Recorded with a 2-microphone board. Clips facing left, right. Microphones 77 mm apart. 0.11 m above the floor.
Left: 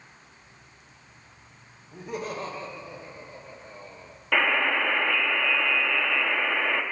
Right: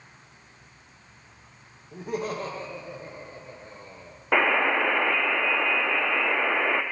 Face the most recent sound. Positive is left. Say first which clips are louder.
# right 2 dB
turn(degrees=-30)  # may be behind; listen again after turning